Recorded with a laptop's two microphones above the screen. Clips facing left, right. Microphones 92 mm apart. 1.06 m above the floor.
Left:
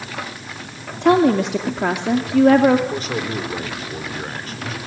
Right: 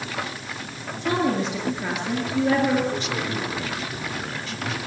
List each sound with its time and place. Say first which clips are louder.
1.0 s a woman speaking: left 9 dB; 70° left (ahead or behind), 2.5 m
2.9 s a man speaking: left 3 dB; 45° left (ahead or behind), 3 m